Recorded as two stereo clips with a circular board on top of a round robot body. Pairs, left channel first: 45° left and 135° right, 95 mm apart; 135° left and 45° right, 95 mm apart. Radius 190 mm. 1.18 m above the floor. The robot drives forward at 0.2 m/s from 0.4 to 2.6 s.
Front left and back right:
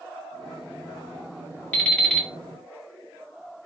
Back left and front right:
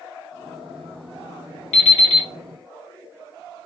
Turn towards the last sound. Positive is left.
turn(degrees=135)